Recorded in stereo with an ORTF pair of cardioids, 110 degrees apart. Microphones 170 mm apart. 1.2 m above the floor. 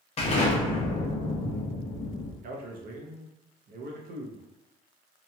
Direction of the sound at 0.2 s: 35° left.